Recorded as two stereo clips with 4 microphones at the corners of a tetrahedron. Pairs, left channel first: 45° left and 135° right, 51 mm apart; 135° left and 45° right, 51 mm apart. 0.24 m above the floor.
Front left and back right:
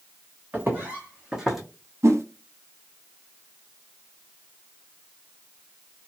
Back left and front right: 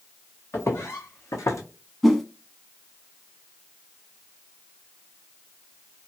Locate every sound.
0.5 s footsteps: 170° left, 1.2 m; by 1.6 s 135° left, 0.9 m
2.0 s a whoosh: 135° right, 0.5 m